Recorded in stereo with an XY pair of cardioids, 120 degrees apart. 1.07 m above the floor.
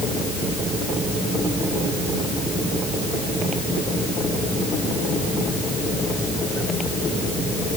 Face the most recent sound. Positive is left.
No sound to turn to.